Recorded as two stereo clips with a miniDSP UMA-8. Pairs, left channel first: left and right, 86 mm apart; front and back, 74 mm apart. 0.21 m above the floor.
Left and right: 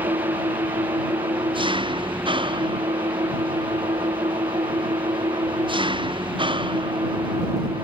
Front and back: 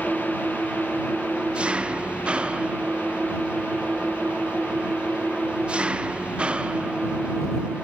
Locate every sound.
0.0 s an engine running: 105° right